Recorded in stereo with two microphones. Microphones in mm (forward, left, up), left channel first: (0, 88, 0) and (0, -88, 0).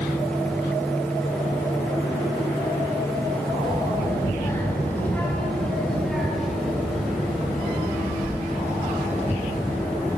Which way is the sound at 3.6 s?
25° left (ahead or behind).